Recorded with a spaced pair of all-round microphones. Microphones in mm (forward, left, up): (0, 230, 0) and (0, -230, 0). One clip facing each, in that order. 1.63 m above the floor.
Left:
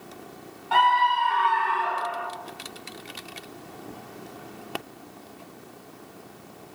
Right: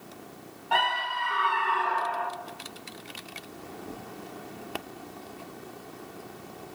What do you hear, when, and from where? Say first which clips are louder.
0.7 s a scream: left 6 dB; 20° left (ahead or behind), 1.7 m; by 2.3 s 5° right (ahead or behind), 2 m